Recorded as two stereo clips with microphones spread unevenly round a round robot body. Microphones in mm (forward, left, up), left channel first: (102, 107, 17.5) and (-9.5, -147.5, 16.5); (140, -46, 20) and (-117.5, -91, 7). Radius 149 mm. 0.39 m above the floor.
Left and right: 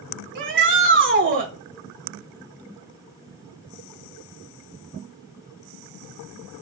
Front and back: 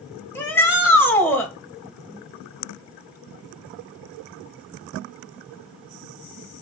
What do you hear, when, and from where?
0.3 s a shout: 70° right, 1.5 m